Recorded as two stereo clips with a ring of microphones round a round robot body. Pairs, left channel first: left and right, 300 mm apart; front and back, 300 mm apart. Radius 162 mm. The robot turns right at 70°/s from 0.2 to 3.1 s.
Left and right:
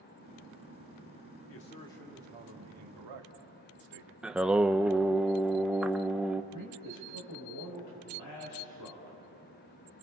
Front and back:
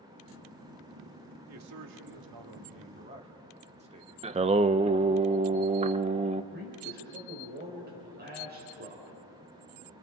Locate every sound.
1.5 s a man speaking: 140° left, 2 m; by 4.1 s 110° right, 2 m
4.2 s singing: 170° right, 0.5 m
6.5 s a man speaking: 125° left, 5 m